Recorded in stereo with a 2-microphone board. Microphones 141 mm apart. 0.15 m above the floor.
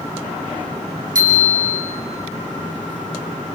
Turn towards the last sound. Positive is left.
turn(degrees=-80)